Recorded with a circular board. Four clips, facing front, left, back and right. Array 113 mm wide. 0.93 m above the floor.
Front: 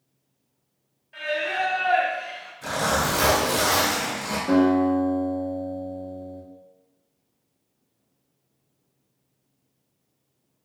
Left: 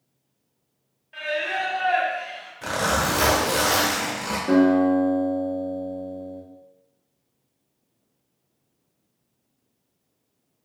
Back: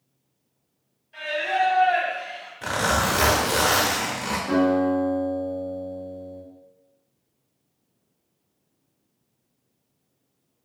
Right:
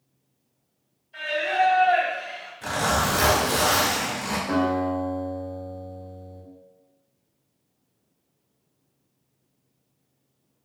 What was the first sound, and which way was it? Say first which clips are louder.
Singing: right 3 dB, back 2 dB; 65° left.